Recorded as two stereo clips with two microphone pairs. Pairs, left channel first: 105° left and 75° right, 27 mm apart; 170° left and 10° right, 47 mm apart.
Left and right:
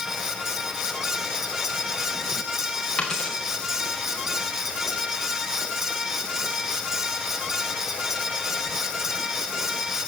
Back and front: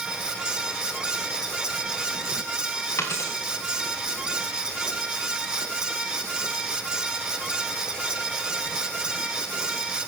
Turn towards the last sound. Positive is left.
turn(degrees=170)